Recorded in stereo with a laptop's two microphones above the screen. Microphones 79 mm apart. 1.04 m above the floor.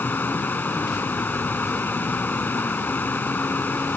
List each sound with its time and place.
0.0 s running water: 25° left (ahead or behind)